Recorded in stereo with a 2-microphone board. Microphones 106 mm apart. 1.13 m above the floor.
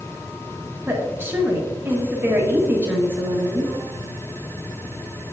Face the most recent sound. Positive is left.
turn(degrees=-20)  # may be behind; listen again after turning